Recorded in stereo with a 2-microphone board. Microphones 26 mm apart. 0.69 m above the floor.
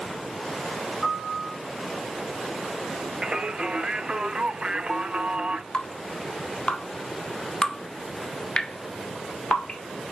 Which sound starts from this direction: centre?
A piano, at 1.0 s.